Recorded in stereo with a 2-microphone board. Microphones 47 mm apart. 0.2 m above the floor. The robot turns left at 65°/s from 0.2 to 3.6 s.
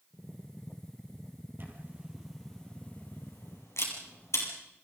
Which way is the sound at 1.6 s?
50° right (ahead or behind).